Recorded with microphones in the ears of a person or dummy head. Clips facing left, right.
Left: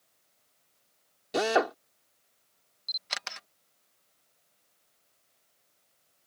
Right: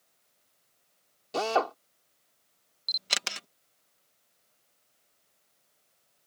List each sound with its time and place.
1.3 s a drill: 20° left (ahead or behind)
2.9 s a camera shutter: 40° right (ahead or behind)